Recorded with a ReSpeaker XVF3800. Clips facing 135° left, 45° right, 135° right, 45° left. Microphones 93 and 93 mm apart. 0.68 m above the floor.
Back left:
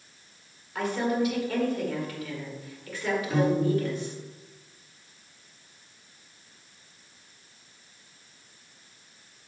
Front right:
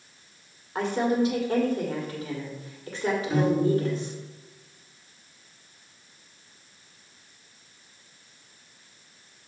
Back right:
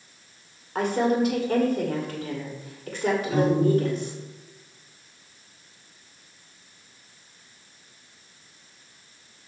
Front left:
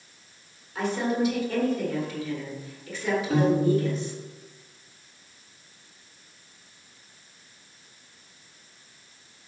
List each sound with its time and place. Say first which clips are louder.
0.8 s a woman speaking: front right 2 dB, back right 4 dB; 100° right, 2.0 m
3.3 s a piano: front right 1 dB, even; 40° left, 3.5 m